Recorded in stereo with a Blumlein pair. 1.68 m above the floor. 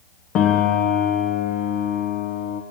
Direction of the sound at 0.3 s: 35° left.